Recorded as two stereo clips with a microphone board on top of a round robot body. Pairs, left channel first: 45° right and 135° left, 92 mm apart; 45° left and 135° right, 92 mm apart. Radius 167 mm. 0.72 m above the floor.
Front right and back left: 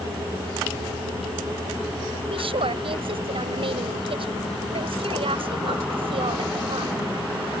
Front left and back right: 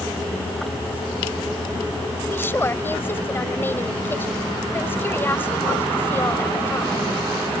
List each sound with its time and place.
2.2 s a woman speaking: 115° left